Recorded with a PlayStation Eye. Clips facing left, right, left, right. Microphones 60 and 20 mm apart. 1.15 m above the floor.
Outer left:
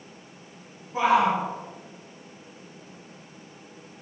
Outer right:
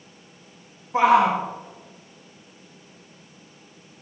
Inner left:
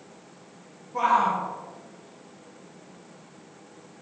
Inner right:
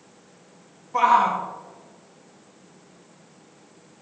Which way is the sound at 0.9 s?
65° right (ahead or behind).